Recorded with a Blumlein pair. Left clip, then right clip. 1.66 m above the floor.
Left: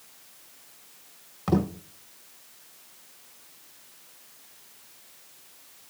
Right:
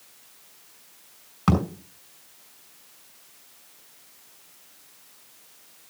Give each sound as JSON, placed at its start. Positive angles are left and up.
{"t": 1.5, "sound": "a thud", "azimuth_deg": -70, "distance_m": 5.0}